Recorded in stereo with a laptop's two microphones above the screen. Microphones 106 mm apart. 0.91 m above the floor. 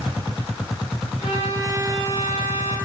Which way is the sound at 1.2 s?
90° left.